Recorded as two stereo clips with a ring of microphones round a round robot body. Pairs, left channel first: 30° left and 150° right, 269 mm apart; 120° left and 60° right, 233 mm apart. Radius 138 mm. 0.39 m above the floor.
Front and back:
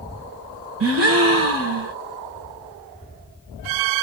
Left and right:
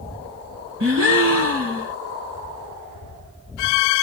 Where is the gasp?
105° right, 1.2 m.